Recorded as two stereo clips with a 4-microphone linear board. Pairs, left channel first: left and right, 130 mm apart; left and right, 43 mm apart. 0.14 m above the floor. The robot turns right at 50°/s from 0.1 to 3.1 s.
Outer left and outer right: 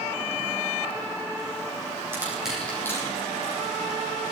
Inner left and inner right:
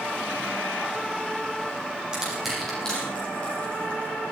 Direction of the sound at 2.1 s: 20° right (ahead or behind).